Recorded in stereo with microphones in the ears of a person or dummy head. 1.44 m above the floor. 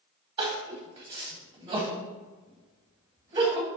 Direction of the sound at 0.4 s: 30° right (ahead or behind).